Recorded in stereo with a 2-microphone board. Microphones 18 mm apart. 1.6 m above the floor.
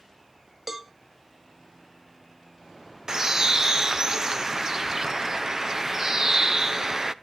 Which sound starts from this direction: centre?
A cowbell, at 0.7 s.